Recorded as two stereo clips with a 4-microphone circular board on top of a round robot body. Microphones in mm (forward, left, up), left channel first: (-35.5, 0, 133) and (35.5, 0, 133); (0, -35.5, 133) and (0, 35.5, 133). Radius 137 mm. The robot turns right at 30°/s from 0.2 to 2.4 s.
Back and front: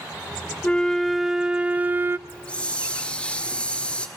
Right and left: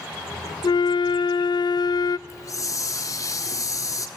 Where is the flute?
105° right, 0.5 m; by 2.2 s 55° right, 0.5 m.